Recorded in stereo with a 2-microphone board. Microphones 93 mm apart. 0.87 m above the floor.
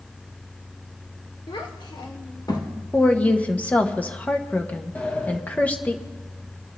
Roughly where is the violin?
I don't hear a violin.